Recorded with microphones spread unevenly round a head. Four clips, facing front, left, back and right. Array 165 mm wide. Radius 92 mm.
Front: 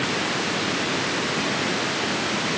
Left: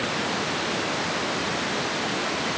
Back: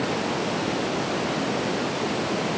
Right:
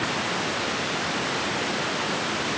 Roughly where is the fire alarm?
I don't hear a fire alarm.